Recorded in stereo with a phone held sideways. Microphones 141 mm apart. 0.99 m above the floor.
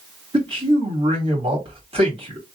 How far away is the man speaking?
About 2.0 m.